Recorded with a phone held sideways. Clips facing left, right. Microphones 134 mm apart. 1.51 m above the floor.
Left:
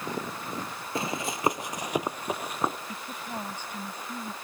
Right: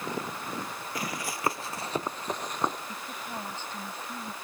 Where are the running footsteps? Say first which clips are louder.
Left 5 dB; 25° left (ahead or behind); by 2.8 s 5° left (ahead or behind).